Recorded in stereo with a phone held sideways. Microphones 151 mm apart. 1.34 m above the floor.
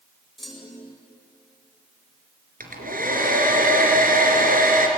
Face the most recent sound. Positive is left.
turn(degrees=-70)  # may be behind; listen again after turning